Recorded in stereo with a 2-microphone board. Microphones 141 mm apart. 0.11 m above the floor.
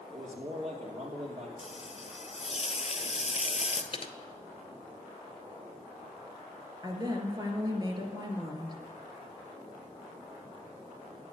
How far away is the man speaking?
About 2.5 m.